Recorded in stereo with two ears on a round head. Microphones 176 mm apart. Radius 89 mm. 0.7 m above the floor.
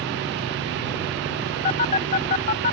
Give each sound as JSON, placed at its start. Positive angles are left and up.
{"t": 1.6, "sound": "a phone buzzing", "side_deg": 40}